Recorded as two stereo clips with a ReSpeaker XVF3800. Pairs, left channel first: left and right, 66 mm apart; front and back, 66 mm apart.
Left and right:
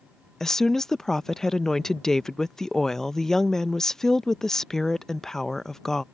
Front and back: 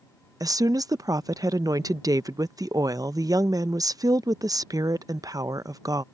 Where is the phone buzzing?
No phone buzzing in this recording.